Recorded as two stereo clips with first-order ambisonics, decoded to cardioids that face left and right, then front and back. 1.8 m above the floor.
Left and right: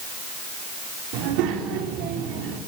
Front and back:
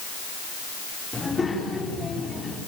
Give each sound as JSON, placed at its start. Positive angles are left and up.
{"t": 1.1, "sound": "a child speaking", "azimuth_deg": -80, "distance_m": 4.5}